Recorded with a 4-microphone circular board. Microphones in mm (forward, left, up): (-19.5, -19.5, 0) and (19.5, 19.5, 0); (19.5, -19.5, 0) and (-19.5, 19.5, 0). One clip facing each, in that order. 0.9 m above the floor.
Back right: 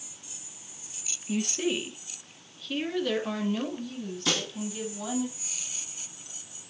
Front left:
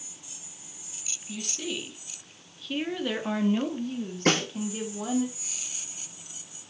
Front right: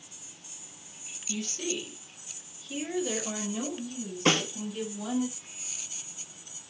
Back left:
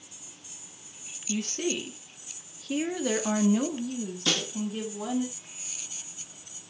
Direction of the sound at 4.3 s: 5° left.